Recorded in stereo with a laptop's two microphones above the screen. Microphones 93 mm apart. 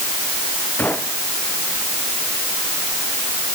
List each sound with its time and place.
0.8 s a gunshot: 20° left (ahead or behind)